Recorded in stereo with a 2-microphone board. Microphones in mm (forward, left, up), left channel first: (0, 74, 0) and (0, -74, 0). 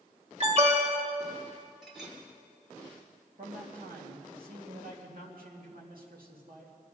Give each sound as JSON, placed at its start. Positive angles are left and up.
{"t": 0.4, "sound": "an alarm", "side_deg": -45, "distance_m": 2.0}
{"t": 1.8, "sound": "a clink", "side_deg": -5, "distance_m": 2.0}
{"t": 3.4, "sound": "a man speaking", "side_deg": -80, "distance_m": 2.5}